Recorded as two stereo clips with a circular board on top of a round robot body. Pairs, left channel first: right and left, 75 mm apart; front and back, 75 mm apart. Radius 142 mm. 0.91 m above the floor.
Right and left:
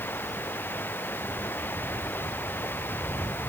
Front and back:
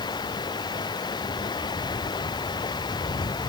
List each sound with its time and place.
0.0 s running water: 25° right